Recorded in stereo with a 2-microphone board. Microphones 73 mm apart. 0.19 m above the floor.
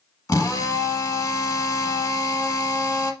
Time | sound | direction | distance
0.3 | a drill | 50° left (ahead or behind) | 0.7 m